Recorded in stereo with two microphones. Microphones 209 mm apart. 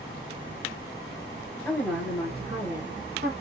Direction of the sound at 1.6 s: 5° right (ahead or behind).